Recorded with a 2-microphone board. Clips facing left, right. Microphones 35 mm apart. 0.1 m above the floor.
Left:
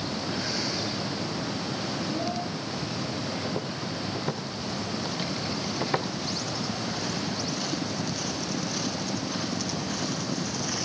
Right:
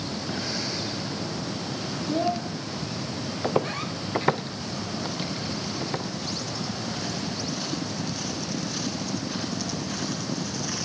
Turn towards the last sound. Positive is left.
turn(degrees=25)  # may be behind; listen again after turning